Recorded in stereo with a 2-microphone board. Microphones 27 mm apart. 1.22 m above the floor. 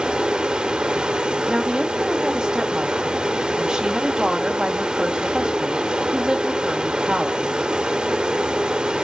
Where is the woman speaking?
25° right (ahead or behind), 1.9 m.